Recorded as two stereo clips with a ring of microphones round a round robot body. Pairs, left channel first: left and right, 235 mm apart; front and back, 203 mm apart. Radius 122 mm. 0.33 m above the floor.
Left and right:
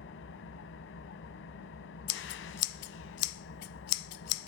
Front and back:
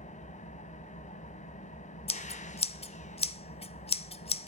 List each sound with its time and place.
0.0 s an engine running: 55° left, 1.6 m
2.1 s scissors: 60° left, 0.9 m